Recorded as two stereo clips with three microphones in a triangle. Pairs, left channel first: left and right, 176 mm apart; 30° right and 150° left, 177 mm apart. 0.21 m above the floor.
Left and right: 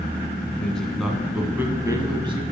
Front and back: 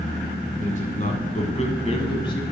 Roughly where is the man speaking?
Ahead.